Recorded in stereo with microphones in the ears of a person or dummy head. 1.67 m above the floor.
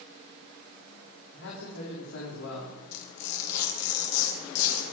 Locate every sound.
1.3 s a man speaking: 70° left (ahead or behind), 4.5 m
2.9 s tearing paper: 65° left (ahead or behind), 3.5 m